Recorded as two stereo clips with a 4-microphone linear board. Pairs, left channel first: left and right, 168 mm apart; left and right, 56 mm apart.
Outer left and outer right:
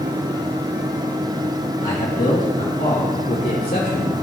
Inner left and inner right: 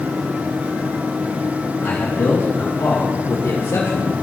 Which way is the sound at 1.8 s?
45° left (ahead or behind).